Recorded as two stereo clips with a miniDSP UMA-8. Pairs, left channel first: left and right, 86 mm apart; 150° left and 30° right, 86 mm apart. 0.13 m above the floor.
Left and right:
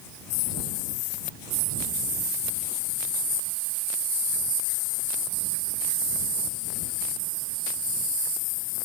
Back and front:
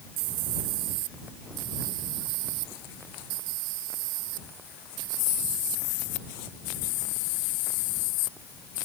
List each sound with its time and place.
Only background noise.